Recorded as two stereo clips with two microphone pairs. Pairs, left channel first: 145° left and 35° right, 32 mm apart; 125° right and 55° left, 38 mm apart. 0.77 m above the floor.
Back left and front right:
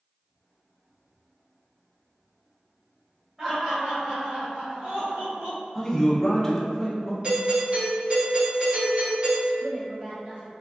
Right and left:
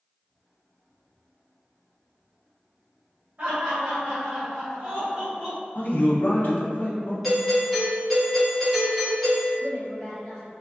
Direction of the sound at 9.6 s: 35° right.